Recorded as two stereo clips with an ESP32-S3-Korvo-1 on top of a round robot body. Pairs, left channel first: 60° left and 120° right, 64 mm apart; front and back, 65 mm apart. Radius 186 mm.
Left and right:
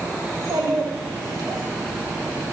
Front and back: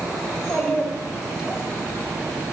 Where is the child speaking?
85° right, 3.5 m; by 1.6 s 100° right, 3 m.